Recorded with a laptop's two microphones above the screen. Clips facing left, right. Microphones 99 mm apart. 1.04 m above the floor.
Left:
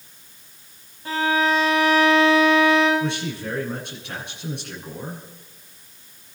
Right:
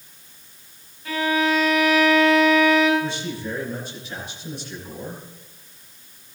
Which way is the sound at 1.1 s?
30° left (ahead or behind).